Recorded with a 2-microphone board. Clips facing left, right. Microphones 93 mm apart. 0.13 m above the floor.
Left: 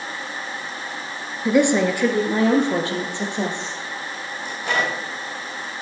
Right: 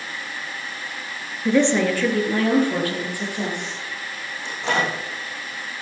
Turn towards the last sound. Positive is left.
turn(degrees=-25)  # may be behind; listen again after turning